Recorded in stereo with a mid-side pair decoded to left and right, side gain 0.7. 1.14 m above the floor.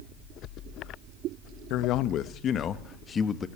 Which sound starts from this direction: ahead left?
A man speaking, at 1.7 s.